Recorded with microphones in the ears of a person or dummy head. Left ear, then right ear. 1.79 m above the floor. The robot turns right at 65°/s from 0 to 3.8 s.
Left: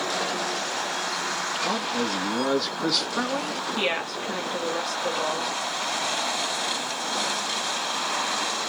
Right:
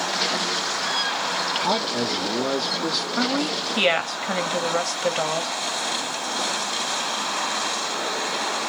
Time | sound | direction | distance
1.6 | a man speaking | 40° right | 1.2 m
3.2 | a woman speaking | 165° left | 0.9 m